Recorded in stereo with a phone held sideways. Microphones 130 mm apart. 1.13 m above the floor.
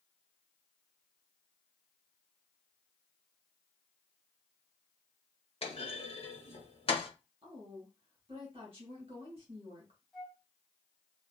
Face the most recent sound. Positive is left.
turn(degrees=5)  # may be behind; listen again after turning